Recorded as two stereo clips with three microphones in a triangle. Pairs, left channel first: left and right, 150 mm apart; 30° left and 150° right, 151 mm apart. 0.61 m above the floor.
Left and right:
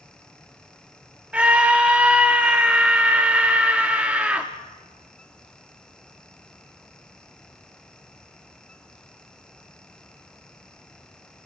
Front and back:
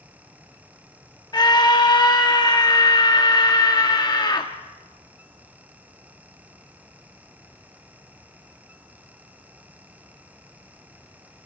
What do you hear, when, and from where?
1.3 s a scream: 15° right, 1.0 m